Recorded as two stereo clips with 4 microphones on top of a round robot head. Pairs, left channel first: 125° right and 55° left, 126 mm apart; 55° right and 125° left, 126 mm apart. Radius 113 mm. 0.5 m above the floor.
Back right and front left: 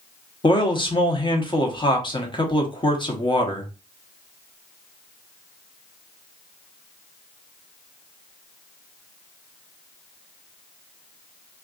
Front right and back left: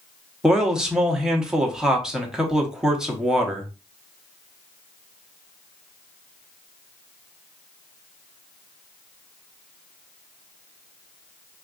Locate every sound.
0.4 s a man speaking: 150° right, 1.0 m